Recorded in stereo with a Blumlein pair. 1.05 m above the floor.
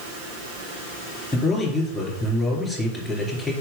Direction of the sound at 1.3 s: 5° left.